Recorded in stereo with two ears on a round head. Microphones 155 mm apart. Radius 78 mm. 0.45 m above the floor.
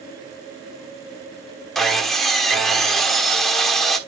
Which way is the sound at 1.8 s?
Centre (ahead or behind).